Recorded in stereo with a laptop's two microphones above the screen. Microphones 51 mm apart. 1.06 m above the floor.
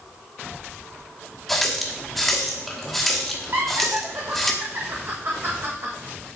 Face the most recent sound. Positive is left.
turn(degrees=-55)  # may be behind; listen again after turning